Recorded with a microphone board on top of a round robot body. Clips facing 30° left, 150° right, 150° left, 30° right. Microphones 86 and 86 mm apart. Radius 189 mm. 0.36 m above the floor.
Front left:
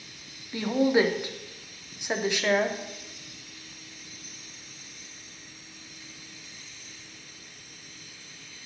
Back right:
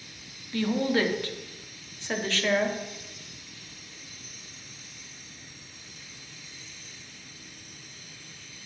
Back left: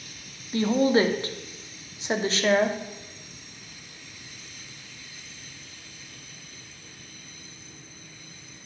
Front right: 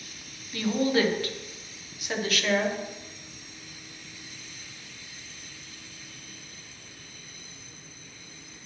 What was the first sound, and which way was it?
A woman speaking, 100° left.